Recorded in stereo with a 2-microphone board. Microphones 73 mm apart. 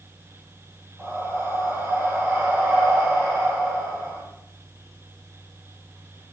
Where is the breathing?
25° right (ahead or behind), 1.8 m.